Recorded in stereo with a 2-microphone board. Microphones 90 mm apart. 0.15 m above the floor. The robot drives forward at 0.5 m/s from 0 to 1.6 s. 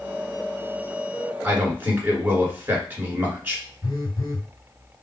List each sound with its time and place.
1.4 s a man speaking: 20° right (ahead or behind), 1.8 m
3.8 s a phone buzzing: 50° left (ahead or behind), 1.0 m